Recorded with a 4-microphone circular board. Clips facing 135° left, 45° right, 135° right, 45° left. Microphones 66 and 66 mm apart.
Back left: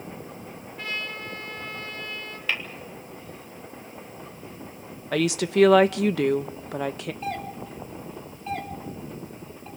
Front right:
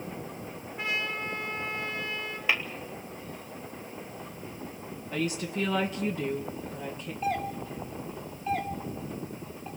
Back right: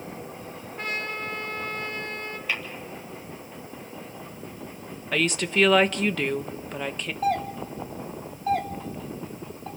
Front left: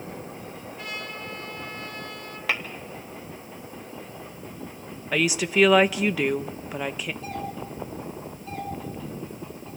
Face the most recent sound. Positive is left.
turn(degrees=-130)